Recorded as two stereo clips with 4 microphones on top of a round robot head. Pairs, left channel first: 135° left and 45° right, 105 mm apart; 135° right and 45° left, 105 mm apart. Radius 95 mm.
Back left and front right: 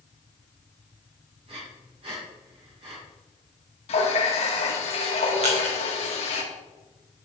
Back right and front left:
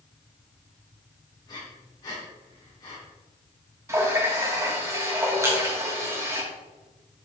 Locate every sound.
1.5 s breathing: 80° right, 4 m
3.9 s a running tap: 110° left, 2.5 m
5.4 s crushing: 20° right, 4 m